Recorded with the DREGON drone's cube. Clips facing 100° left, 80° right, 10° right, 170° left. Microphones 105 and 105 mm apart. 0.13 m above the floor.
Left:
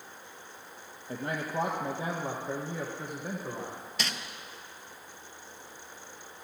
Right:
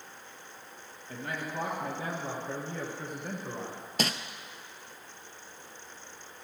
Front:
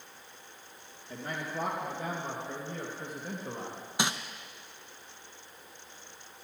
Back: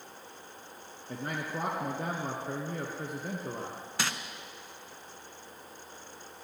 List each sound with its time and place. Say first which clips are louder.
1.1 s a man speaking: left 3 dB, back 1 dB; 145° left, 2.0 m; by 3.8 s 170° right, 2.5 m
4.0 s crumpling: right 6 dB, front 3 dB; 75° right, 0.8 m